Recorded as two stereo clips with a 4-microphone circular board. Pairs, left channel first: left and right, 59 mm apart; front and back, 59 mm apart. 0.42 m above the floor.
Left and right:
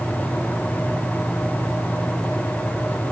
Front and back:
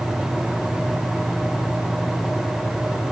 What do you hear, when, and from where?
Only background noise.